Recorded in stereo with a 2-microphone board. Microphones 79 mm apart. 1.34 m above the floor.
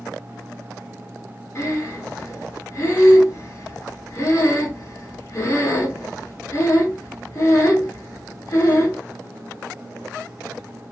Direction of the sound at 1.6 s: 40° left (ahead or behind).